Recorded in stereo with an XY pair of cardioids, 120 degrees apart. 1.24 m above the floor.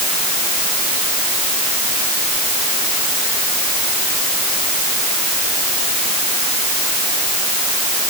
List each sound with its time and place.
Only background noise.